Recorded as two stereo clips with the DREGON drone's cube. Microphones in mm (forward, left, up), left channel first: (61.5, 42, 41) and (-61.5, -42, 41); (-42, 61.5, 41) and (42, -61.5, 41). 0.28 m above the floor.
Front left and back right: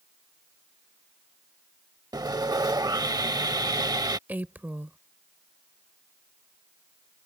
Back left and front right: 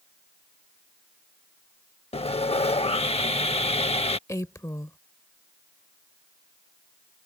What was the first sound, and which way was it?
Sawing, 160° left.